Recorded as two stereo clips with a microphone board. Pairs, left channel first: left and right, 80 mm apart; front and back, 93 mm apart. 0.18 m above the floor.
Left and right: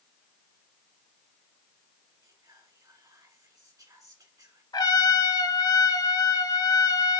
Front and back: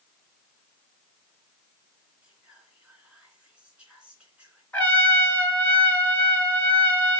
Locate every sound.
2.2 s whispering: 105° right, 2.5 m
4.7 s a trumpet: 75° left, 1.4 m